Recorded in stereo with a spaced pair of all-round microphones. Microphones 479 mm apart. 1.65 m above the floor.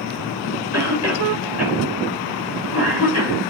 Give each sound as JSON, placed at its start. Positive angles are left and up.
{"t": 0.7, "sound": "a cough", "side_deg": 30, "distance_m": 5.5}